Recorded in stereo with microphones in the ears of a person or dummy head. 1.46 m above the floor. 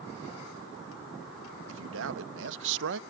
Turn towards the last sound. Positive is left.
turn(degrees=-70)  # may be behind; listen again after turning